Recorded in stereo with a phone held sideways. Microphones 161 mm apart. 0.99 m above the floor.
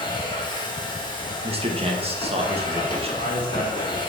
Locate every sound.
0.0 s a machine running: 30° left (ahead or behind), 1.3 m
1.4 s a man speaking: 40° right (ahead or behind), 1.2 m
3.0 s a man speaking: 80° left, 1.9 m